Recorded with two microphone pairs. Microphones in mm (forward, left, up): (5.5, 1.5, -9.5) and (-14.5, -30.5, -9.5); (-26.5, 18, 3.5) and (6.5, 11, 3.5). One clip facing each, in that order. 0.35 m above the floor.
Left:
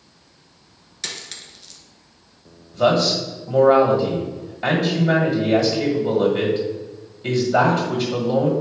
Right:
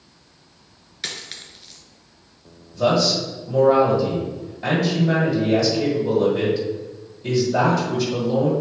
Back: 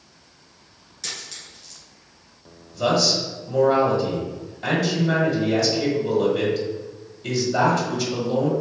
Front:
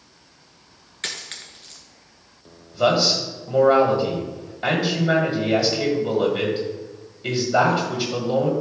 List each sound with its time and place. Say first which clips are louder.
1.0 s a dropped coin: right 1 dB, front 3 dB; 50° right, 1.5 m
2.7 s a man speaking: left 1 dB, front 2 dB; 30° left, 1.7 m